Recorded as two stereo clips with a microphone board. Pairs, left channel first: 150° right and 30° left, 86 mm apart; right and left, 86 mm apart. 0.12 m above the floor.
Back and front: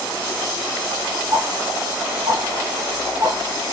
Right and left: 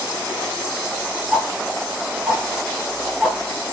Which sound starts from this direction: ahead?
Ticking, at 1.3 s.